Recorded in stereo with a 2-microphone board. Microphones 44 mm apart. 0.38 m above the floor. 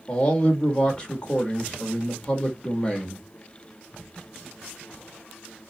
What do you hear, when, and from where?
0.1 s a man speaking: 20° left (ahead or behind), 0.9 m